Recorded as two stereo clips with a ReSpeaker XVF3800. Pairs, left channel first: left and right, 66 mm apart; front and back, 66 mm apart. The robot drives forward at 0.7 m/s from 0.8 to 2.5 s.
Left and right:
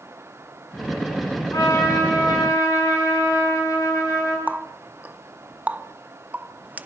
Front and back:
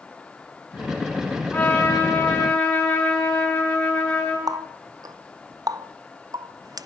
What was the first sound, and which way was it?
A trumpet, 65° left.